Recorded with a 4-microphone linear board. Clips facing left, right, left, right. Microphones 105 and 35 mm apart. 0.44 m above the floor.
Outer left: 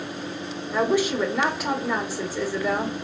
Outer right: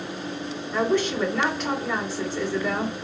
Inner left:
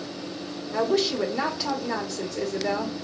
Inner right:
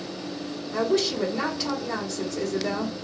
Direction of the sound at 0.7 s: 10° left (ahead or behind).